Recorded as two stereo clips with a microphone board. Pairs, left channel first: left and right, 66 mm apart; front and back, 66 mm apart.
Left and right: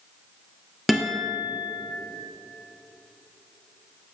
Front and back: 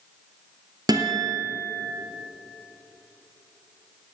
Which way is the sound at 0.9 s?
Straight behind.